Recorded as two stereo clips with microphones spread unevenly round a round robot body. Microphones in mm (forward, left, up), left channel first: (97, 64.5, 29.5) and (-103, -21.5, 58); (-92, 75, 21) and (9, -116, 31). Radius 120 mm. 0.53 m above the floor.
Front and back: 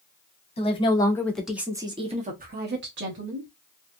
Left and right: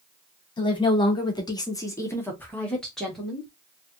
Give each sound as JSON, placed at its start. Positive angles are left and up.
{"t": 0.6, "sound": "a woman speaking", "azimuth_deg": 60, "distance_m": 1.5}